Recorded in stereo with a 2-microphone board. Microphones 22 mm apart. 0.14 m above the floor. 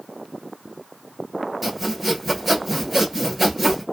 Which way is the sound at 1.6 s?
Centre (ahead or behind).